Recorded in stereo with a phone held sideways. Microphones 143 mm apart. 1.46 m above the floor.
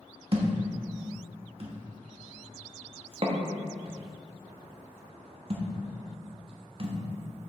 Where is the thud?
45° right (ahead or behind), 1.1 m.